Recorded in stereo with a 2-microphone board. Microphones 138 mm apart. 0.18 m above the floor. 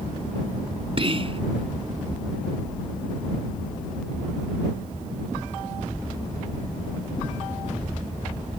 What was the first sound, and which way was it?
Whispering, 45° right (ahead or behind).